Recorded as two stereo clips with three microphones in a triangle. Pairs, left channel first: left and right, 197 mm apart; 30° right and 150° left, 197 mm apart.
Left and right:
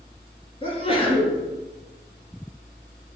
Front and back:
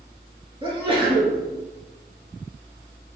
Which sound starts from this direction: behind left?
A sneeze, at 0.6 s.